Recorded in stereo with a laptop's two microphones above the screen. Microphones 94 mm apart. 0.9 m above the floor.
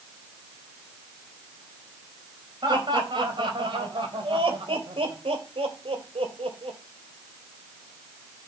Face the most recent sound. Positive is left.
turn(degrees=-85)